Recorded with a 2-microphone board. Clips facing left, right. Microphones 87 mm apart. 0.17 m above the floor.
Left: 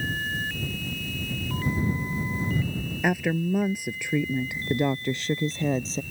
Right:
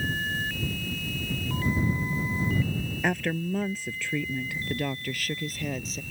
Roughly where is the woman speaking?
Centre.